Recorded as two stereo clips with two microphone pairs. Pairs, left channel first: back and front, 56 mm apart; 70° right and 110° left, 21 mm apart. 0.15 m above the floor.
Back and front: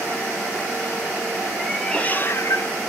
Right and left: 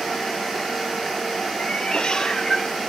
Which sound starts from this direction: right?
A cat meowing, at 1.6 s.